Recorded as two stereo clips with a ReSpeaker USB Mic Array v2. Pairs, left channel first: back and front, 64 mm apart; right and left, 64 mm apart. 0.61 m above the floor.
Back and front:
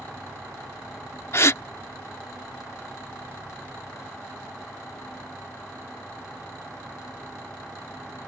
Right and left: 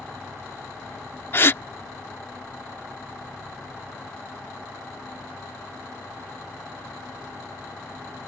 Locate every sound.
1.3 s a gasp: 140° right